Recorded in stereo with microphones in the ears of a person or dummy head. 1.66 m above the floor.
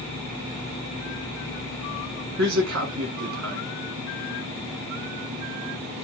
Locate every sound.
2.4 s a man speaking: 75° right (ahead or behind), 1.4 m